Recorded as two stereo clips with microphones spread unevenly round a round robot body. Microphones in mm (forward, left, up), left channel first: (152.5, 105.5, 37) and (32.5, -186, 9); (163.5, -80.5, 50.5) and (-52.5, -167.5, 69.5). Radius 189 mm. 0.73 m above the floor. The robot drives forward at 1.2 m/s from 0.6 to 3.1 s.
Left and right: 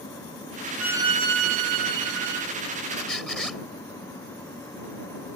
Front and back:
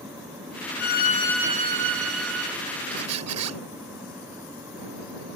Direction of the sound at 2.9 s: 145° left.